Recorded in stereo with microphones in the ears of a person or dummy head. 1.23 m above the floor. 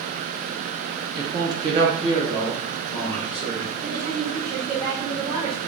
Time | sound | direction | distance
1.1 | a man speaking | 15° right (ahead or behind) | 0.6 m
3.8 | a woman speaking | 35° right (ahead or behind) | 1.6 m